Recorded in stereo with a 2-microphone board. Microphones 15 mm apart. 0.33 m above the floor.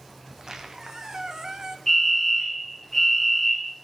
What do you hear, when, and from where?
0.3 s a squeak: 40° right (ahead or behind), 1.1 m
1.9 s a fire alarm: 25° left (ahead or behind), 4 m